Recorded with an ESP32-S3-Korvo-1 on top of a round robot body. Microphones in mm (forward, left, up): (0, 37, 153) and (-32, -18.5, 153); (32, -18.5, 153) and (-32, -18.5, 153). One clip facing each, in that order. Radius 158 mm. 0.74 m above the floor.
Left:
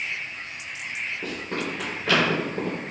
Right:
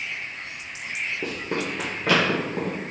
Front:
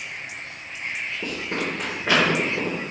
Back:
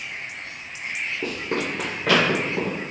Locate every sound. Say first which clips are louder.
1.2 s running footsteps: right 2 dB, back 1 dB; 135° right, 0.7 m; by 2.8 s 155° right, 1.3 m